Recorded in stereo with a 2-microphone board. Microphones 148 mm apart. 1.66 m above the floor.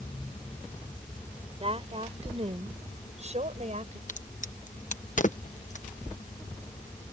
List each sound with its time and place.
1.6 s a woman speaking: 40° right (ahead or behind); by 4.0 s 55° right (ahead or behind)
4.1 s a crack: 60° left (ahead or behind)